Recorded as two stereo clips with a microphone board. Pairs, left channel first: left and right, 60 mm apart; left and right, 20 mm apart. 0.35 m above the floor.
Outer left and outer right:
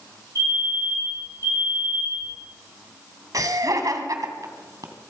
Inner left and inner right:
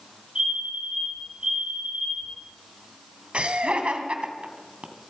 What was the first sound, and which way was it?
A fire alarm, 60° right (ahead or behind).